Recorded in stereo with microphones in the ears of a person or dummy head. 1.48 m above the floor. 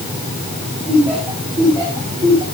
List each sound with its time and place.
0.9 s laughter: 10° right (ahead or behind), 7 m